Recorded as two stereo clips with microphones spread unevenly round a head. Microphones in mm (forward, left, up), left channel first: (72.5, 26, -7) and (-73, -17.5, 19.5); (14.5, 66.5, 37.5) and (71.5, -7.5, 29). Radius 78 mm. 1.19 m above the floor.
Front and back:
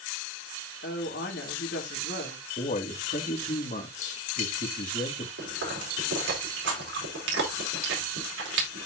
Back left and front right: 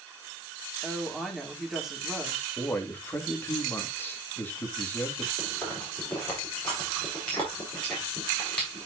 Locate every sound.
0.8 s a woman speaking: 35° left, 2.5 m
2.6 s a man speaking: 60° left, 2 m
5.4 s chewing: 150° right, 4.5 m